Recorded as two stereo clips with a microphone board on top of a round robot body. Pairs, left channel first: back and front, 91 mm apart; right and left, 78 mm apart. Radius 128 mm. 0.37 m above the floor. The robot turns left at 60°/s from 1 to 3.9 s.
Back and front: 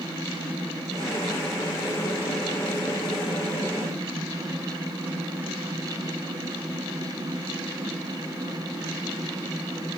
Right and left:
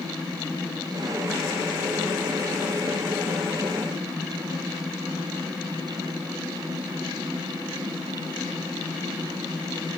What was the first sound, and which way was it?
Only background noise.